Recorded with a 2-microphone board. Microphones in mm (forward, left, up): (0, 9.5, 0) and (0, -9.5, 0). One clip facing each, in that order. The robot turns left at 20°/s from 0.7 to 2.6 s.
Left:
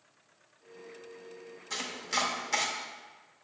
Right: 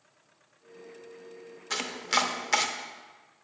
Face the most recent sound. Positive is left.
turn(degrees=-30)  # may be behind; listen again after turning